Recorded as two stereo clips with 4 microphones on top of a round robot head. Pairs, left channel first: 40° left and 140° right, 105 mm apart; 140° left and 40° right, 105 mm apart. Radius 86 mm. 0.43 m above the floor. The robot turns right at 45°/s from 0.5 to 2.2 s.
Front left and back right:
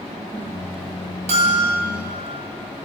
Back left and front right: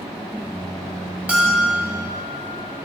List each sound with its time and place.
1.3 s a bell: 120° right, 1.9 m; by 1.8 s 95° right, 1.9 m